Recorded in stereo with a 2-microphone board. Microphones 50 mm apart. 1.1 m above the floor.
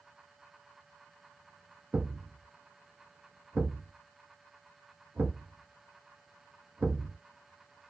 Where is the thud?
35° right (ahead or behind), 1.2 m.